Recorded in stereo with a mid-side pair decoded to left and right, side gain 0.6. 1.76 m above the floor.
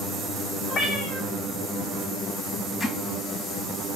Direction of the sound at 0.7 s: 65° left.